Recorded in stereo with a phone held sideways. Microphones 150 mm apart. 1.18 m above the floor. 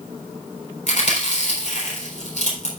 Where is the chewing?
55° left (ahead or behind), 4 m.